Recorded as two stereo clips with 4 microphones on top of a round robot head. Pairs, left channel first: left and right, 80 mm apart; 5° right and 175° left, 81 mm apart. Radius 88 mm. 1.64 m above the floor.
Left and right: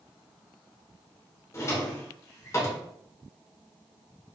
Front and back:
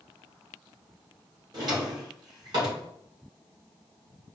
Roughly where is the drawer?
Behind left.